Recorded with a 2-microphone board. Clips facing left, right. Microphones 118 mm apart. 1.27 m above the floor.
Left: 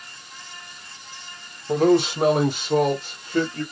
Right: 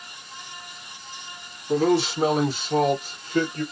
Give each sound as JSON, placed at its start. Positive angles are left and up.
{"t": 1.7, "sound": "a man speaking", "side_deg": 55, "distance_m": 1.4}